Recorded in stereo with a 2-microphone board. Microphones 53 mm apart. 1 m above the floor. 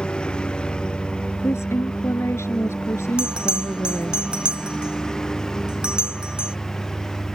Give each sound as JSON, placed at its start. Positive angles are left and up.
{"t": 0.0, "sound": "a lawn mower", "side_deg": 20}
{"t": 1.4, "sound": "a woman speaking", "side_deg": 55}
{"t": 3.2, "sound": "a bell", "side_deg": -20}